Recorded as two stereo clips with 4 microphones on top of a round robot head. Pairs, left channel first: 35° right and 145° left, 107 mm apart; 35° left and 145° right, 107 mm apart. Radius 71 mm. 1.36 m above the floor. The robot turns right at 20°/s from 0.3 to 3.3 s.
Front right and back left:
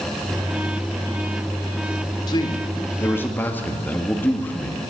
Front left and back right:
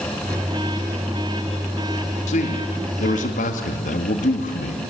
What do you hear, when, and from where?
2.3 s a man speaking: 20° left, 1.9 m; by 4.8 s 40° left, 1.9 m